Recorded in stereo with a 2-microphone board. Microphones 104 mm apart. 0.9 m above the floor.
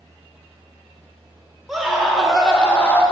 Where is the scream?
Centre (ahead or behind), 3 m; by 3.0 s 20° left (ahead or behind), 1.8 m.